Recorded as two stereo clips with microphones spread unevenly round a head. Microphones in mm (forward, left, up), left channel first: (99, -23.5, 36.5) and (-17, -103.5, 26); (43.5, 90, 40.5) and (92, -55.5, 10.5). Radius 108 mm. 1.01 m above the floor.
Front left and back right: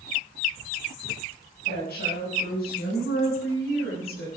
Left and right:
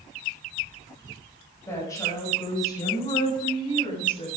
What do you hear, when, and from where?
1.7 s a woman speaking: 40° left, 6.5 m; by 4.3 s 60° left, 7.5 m